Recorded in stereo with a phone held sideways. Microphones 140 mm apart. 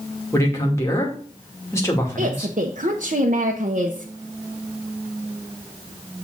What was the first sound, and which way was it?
A man speaking, 20° left (ahead or behind).